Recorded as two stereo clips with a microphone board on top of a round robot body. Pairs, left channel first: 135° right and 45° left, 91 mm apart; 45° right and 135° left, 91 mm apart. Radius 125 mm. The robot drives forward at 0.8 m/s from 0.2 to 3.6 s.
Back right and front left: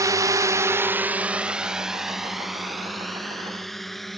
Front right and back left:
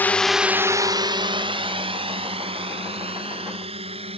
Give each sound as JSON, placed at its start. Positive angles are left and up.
{"t": 0.0, "sound": "a drone", "azimuth_deg": 15}